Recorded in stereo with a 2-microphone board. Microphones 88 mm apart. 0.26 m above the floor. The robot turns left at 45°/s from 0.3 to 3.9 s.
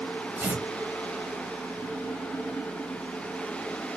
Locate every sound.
0.4 s tearing paper: 20° right (ahead or behind), 0.9 m; by 0.7 s 25° right (ahead or behind), 0.9 m